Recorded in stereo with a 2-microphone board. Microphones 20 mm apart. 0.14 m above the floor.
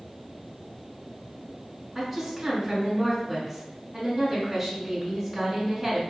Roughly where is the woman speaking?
Centre.